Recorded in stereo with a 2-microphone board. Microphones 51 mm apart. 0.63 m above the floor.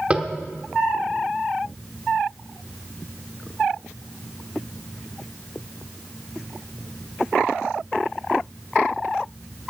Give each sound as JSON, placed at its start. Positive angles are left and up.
{"t": 0.1, "sound": "tapping", "side_deg": -20, "distance_m": 1.1}